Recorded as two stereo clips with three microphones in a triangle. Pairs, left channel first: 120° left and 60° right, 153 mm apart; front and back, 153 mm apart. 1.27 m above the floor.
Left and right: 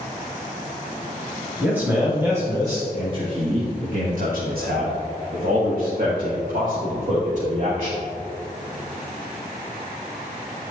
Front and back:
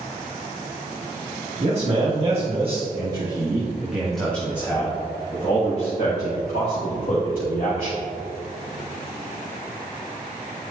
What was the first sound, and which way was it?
A man speaking, 140° right.